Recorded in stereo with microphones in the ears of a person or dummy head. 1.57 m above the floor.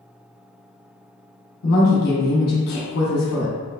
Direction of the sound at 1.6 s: 60° left (ahead or behind).